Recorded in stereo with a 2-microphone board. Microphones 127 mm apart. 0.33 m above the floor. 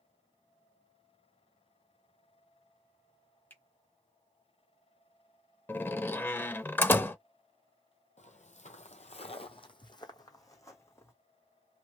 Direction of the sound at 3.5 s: 15° left (ahead or behind).